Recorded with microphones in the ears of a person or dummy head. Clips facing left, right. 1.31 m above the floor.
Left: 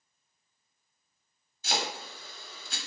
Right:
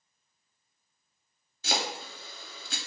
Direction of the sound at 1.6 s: 50° right (ahead or behind).